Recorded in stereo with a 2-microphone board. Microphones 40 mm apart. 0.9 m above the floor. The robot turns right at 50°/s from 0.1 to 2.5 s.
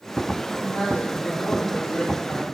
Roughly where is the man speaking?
Ahead left.